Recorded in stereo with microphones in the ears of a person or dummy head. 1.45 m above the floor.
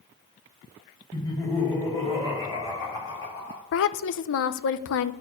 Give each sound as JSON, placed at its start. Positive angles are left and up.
{"t": 1.1, "sound": "laughter", "side_deg": 20, "distance_m": 5.0}
{"t": 3.7, "sound": "a woman speaking", "side_deg": 65, "distance_m": 0.7}